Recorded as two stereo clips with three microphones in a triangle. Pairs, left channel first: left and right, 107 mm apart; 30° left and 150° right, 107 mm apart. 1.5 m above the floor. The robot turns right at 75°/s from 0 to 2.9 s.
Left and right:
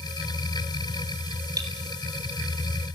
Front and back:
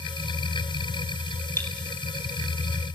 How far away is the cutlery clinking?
About 4 m.